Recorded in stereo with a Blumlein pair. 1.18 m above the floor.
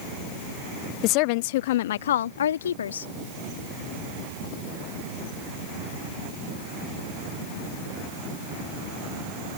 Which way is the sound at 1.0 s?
40° left.